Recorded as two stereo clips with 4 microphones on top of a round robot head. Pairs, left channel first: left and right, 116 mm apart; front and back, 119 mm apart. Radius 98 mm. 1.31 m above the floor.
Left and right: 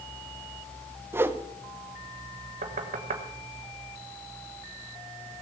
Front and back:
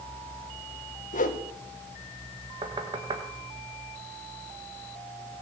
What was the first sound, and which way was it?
A whoosh, 20° right.